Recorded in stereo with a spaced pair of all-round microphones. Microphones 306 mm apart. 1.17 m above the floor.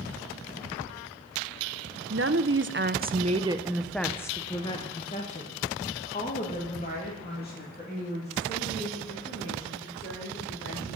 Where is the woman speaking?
45° right (ahead or behind), 0.8 m; by 11.0 s 35° left (ahead or behind), 4 m.